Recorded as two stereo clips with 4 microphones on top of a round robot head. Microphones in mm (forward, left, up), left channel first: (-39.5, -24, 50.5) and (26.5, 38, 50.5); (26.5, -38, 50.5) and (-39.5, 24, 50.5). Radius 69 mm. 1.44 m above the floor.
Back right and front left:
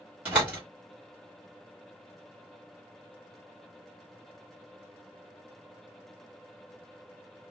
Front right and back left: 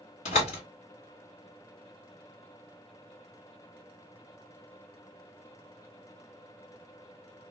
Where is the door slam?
35° right, 1.3 m.